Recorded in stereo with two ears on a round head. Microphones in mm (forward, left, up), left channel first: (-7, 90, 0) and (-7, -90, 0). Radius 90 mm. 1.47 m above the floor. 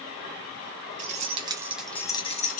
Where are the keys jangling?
40° right (ahead or behind), 0.7 m; by 2.6 s 40° left (ahead or behind), 0.6 m.